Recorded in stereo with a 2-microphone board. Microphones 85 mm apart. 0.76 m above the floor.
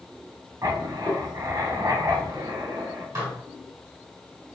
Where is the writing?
40° right (ahead or behind), 2 m.